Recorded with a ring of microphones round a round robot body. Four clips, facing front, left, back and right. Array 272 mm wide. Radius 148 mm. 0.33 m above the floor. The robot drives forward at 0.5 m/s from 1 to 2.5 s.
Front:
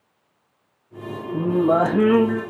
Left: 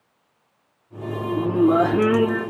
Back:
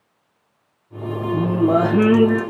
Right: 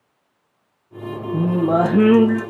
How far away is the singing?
About 6.5 m.